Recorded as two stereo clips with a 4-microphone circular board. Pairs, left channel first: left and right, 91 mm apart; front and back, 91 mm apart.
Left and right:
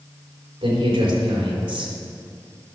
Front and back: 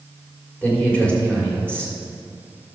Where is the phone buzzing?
I don't hear a phone buzzing.